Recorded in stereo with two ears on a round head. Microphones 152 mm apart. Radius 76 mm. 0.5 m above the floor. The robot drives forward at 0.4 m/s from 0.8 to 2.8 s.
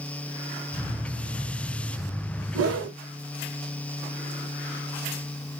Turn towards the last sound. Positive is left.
turn(degrees=-90)